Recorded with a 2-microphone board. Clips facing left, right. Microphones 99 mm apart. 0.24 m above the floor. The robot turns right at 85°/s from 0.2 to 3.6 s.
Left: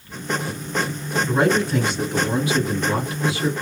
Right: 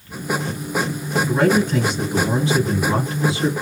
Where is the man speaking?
140° left, 1.6 m; by 3.5 s 30° right, 1.6 m.